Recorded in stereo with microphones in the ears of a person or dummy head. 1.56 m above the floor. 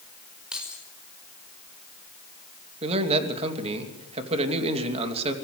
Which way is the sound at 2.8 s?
35° right (ahead or behind).